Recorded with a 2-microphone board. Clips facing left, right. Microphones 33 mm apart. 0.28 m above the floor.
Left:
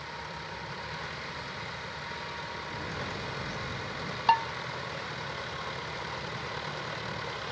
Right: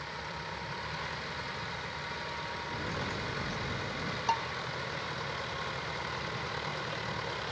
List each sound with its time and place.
2.7 s a bird: 60° right (ahead or behind), 3.5 m
4.3 s dishes clattering: 40° left (ahead or behind), 1.1 m